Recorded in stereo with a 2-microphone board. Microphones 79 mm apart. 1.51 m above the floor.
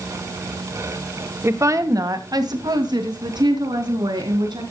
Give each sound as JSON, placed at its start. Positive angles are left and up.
{"t": 1.4, "sound": "a woman speaking", "side_deg": -35, "distance_m": 1.2}